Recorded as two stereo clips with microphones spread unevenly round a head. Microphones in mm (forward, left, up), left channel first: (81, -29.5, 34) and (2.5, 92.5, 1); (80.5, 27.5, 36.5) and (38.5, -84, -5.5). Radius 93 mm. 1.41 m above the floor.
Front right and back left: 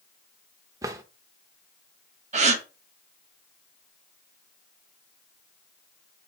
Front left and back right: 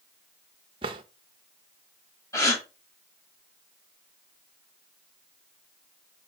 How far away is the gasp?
About 1.5 m.